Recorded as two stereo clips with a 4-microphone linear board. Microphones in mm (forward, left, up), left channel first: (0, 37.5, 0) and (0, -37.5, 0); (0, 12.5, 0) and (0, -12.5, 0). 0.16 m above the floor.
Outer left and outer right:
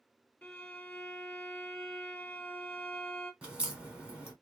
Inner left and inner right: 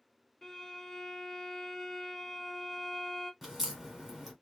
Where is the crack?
15° right (ahead or behind), 1.4 m.